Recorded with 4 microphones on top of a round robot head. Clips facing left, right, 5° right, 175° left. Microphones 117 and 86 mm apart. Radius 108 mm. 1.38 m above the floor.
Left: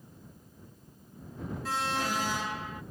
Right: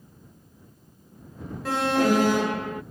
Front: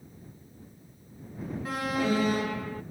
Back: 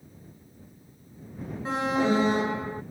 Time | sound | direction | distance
1.6 | an alarm | 110° right | ?